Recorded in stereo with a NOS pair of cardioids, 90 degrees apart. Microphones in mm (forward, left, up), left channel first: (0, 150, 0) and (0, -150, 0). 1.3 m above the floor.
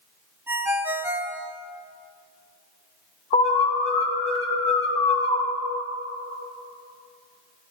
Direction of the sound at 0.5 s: 5° right.